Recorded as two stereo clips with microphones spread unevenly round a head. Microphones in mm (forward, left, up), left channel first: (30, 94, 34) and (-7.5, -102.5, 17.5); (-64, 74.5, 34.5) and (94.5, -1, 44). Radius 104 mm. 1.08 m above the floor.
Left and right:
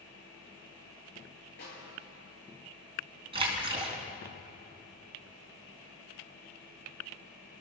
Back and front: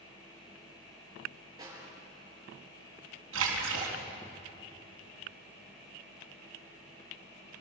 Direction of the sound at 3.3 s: 35° right.